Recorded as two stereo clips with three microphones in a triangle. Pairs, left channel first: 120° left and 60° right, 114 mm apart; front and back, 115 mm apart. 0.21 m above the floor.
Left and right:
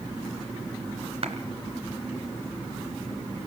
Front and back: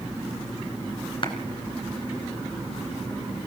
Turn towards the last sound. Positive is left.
turn(degrees=-40)